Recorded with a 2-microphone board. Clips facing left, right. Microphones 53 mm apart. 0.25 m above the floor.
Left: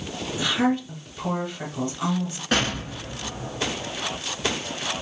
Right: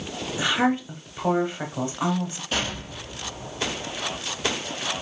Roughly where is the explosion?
Left.